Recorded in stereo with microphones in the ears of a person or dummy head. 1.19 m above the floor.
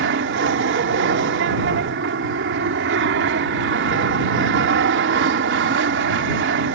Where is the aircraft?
60° right (ahead or behind).